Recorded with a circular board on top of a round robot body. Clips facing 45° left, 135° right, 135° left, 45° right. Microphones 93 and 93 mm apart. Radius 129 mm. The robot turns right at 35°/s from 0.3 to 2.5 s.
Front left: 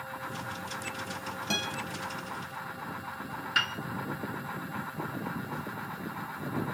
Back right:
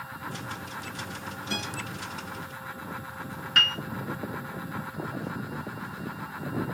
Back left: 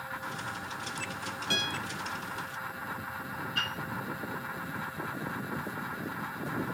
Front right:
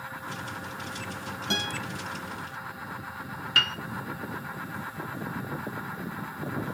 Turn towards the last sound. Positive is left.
turn(degrees=-40)